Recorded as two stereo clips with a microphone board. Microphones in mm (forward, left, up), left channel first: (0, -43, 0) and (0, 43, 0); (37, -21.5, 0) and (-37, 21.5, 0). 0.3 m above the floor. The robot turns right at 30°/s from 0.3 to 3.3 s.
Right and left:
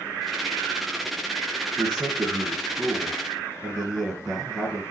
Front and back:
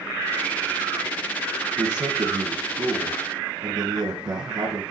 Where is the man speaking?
135° left, 3.5 m; by 4.8 s straight behind, 3.5 m.